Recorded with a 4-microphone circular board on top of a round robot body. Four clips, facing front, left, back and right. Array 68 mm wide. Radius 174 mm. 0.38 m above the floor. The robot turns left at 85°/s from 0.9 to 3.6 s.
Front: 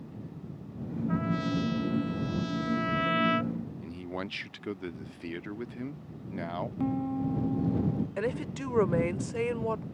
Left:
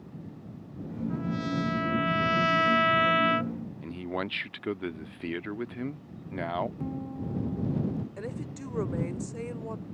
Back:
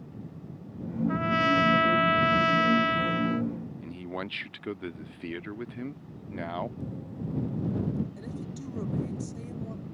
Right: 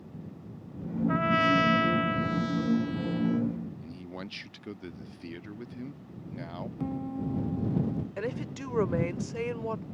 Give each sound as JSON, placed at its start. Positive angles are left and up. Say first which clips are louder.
{"t": 1.1, "sound": "a trumpet", "louder": "right 8 dB, back 6 dB", "azimuth_deg": -100}
{"t": 3.8, "sound": "a man speaking", "louder": "left 8 dB, back 1 dB", "azimuth_deg": 100}
{"t": 6.8, "sound": "a piano", "louder": "right 2 dB, front 8 dB", "azimuth_deg": -10}
{"t": 8.2, "sound": "a woman speaking", "louder": "right 3 dB, front 7 dB", "azimuth_deg": -25}